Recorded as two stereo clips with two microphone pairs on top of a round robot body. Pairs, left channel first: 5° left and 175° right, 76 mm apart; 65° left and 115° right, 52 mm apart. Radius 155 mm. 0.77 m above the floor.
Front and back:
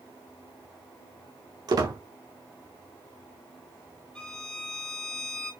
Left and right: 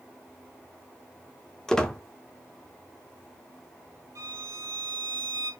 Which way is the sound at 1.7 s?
150° left.